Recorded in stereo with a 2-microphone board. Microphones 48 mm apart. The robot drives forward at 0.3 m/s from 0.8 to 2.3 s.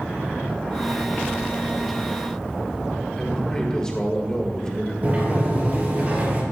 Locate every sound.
3.2 s a man speaking: 15° left (ahead or behind), 1.9 m
5.0 s a sliding door: 30° right (ahead or behind), 3 m